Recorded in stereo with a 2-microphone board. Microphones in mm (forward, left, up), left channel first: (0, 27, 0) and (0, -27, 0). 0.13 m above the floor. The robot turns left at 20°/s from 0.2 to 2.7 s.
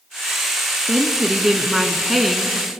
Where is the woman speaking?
15° right (ahead or behind), 1.2 m; by 2.7 s centre (ahead or behind), 1.2 m.